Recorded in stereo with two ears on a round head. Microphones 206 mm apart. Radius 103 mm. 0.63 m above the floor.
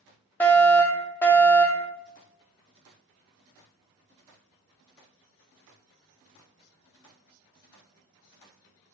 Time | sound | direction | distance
0.4 | a fire alarm | 10° left (ahead or behind) | 2.0 m